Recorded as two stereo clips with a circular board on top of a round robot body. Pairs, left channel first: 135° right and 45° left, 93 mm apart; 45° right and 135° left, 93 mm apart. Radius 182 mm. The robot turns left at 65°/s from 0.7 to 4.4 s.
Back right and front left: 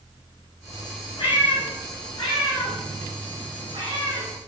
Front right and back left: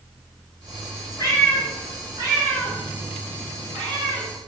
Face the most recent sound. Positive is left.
turn(degrees=50)